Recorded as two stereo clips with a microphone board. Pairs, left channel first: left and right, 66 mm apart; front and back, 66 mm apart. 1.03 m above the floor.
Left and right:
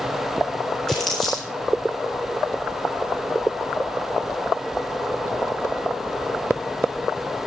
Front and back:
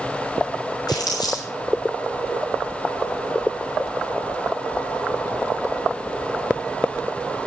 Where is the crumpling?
5° left, 8.5 m.